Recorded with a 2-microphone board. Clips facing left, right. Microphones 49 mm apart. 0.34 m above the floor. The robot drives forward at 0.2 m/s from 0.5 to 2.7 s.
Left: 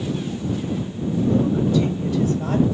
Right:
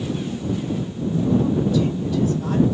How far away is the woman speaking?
About 1.8 m.